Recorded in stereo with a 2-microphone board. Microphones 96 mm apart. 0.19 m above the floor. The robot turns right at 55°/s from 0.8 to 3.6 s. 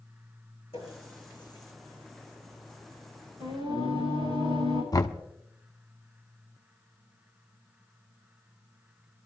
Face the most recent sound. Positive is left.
turn(degrees=40)  # may be behind; listen again after turning